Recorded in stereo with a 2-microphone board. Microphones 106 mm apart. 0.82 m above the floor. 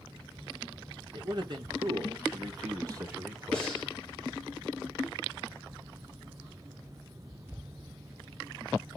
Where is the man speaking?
50° right (ahead or behind), 1.7 m; by 3.7 s 20° right (ahead or behind), 1.4 m.